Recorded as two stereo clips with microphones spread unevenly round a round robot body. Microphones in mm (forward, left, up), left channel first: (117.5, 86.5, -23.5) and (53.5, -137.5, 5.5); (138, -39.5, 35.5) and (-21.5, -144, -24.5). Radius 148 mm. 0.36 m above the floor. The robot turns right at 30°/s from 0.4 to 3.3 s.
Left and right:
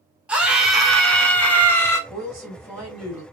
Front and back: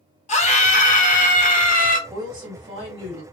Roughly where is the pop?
No pop in this recording.